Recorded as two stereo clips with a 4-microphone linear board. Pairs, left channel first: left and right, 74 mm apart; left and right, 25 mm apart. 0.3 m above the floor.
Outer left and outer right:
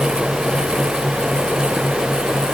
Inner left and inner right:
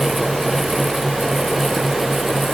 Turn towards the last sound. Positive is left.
No sound to turn to.